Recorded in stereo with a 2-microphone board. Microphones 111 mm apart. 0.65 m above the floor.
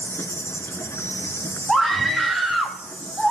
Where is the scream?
Centre (ahead or behind), 1.1 m.